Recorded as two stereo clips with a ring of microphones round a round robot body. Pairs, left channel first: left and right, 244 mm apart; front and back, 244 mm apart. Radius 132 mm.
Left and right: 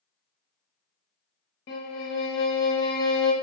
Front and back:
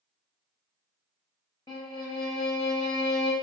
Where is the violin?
70° left, 0.7 m.